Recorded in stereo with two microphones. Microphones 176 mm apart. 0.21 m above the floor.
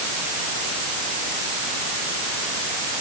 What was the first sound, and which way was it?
Only background noise.